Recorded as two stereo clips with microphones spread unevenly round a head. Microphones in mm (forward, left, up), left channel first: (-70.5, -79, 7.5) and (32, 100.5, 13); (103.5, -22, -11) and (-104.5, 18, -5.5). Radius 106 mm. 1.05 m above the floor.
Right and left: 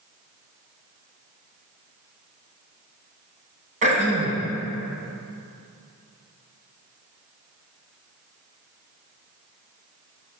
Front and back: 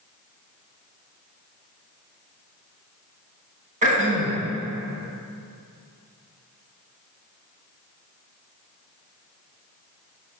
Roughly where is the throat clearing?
Behind left.